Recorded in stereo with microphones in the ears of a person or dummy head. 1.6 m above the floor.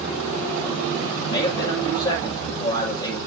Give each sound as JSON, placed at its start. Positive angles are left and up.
{"t": 1.2, "sound": "a man speaking", "side_deg": 25, "distance_m": 7.5}